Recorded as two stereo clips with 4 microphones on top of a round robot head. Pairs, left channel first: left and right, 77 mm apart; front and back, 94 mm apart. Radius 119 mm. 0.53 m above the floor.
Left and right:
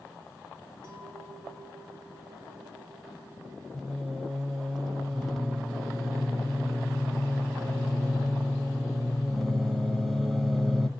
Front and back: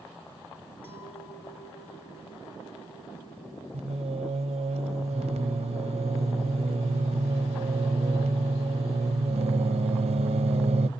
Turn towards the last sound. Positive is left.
turn(degrees=180)